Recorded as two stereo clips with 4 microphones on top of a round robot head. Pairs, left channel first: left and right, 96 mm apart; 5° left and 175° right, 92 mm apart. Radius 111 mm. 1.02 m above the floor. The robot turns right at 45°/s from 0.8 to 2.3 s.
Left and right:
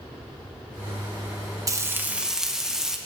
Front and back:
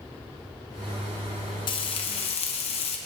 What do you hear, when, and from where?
1.7 s frying: 35° right, 0.9 m; by 3.0 s 5° right, 0.9 m